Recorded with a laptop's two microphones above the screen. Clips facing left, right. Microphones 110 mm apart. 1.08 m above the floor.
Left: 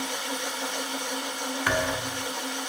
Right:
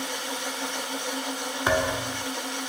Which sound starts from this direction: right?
A thud, at 1.7 s.